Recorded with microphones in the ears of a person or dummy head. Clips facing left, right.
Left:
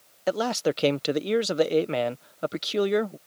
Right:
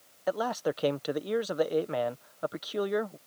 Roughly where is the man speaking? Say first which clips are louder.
Left 5 dB; left.